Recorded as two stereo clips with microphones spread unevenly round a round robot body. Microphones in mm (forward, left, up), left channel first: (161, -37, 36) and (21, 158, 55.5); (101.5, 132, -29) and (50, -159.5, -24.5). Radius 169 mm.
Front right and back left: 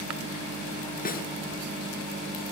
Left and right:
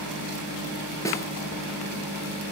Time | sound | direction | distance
1.1 | a snare drum | straight ahead | 4.5 m